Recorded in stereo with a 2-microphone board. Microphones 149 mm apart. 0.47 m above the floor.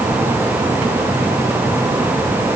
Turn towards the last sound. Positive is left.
No sound to turn to.